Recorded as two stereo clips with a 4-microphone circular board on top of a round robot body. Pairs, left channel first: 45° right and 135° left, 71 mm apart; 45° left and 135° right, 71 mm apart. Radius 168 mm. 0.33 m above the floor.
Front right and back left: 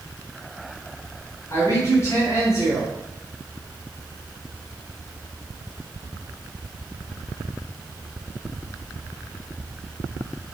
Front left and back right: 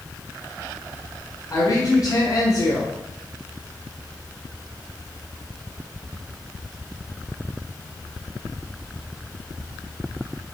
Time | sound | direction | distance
1.5 | a woman speaking | 5° left | 5.5 m